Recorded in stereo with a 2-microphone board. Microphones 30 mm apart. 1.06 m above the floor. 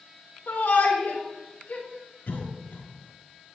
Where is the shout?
70° left (ahead or behind), 3 m; by 1.9 s 60° left (ahead or behind), 3.5 m.